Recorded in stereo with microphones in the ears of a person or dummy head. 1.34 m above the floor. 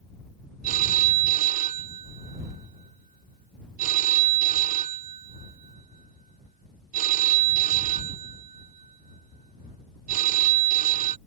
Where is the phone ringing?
45° right (ahead or behind).